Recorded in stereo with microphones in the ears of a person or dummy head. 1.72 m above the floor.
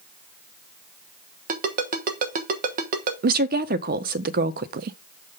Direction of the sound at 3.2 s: 50° right (ahead or behind).